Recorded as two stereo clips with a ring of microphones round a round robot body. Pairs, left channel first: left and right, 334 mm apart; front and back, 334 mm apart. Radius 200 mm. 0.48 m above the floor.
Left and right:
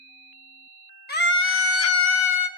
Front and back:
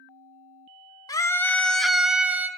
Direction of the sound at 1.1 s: 70° left.